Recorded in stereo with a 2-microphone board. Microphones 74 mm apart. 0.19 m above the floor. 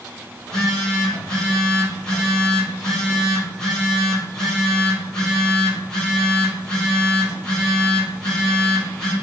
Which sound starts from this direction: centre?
A phone buzzing, at 0.4 s.